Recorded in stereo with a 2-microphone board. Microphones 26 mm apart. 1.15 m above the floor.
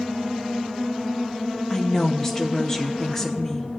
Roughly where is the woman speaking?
Centre.